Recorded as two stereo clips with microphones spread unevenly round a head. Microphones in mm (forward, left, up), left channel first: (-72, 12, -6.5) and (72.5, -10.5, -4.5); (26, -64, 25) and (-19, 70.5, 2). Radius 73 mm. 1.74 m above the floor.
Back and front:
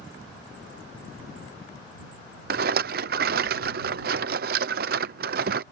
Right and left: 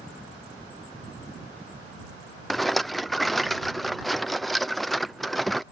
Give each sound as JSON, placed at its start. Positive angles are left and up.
{"t": 2.5, "sound": "a rattle", "azimuth_deg": 15}